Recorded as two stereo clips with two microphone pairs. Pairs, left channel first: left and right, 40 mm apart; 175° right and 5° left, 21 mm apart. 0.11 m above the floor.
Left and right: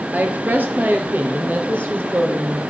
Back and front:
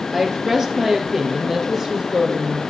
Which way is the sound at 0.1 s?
70° right.